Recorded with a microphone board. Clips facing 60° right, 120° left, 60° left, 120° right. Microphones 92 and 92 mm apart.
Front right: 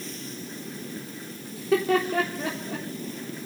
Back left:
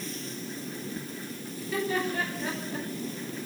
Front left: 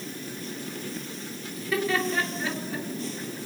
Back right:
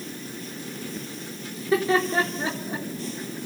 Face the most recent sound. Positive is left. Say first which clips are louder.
# front right 7 dB, back right 5 dB
turn(degrees=-60)